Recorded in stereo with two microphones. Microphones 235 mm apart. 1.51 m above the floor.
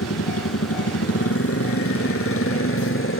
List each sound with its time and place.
0.0 s a motorcycle: 80° left; by 3.2 s 60° left (ahead or behind)